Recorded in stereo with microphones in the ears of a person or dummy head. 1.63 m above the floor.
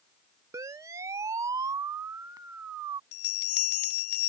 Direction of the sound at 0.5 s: 15° right (ahead or behind).